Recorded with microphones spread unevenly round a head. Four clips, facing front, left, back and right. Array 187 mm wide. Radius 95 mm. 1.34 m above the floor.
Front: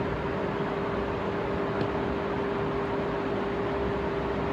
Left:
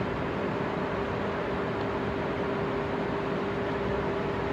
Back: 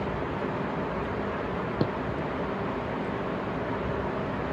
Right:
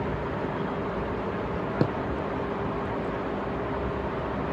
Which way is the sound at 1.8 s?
115° right.